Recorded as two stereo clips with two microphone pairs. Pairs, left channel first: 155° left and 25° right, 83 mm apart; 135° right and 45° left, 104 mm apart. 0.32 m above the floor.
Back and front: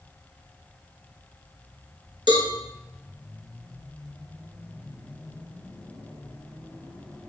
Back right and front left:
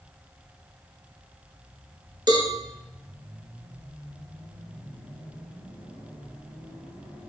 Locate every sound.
2.3 s a cowbell: 5° right, 1.3 m